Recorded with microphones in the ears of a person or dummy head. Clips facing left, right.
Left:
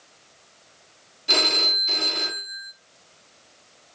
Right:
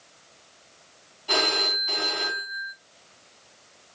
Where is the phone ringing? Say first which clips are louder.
Even; 30° left (ahead or behind), 1.7 m.